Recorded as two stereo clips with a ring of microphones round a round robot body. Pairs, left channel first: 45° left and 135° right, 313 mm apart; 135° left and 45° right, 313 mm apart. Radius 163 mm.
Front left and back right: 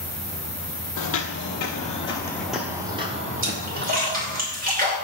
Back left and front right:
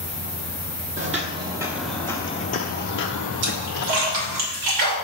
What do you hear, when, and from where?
1.0 s footsteps: 15° left, 1.0 m; by 4.4 s 175° left, 1.4 m
3.4 s a splash: 70° right, 2.5 m